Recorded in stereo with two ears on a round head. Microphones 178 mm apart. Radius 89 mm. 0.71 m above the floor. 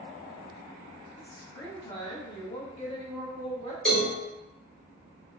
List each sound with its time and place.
1.2 s a woman speaking: 15° left (ahead or behind), 1.1 m; by 3.8 s 25° left (ahead or behind), 1.2 m
3.9 s a cowbell: 5° left (ahead or behind), 1.5 m